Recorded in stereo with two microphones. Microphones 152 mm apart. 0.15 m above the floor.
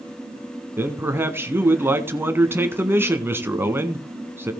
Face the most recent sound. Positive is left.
turn(degrees=-15)  # may be behind; listen again after turning